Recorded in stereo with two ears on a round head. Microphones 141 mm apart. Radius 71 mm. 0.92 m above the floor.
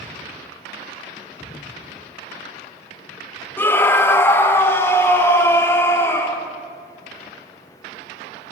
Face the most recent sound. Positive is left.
turn(degrees=15)  # may be behind; listen again after turning